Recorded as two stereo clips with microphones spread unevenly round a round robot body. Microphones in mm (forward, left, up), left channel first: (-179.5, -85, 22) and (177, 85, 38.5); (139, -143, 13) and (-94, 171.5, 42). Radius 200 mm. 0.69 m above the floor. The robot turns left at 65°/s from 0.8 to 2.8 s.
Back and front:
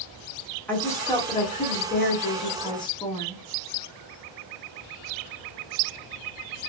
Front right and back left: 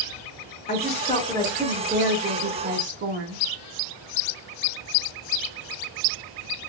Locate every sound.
0.7 s a woman speaking: 80° right, 0.9 m; by 3.4 s 150° left, 0.9 m